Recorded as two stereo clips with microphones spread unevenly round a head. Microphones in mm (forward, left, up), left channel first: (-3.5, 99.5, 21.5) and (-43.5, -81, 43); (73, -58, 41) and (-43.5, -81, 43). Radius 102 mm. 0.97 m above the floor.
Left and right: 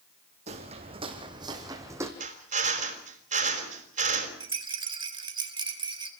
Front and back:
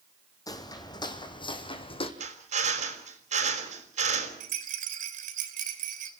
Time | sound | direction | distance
0.5 | footsteps | 45° right | 3 m
2.2 | a drill | 155° right | 5 m
4.4 | a rattle | 170° right | 3 m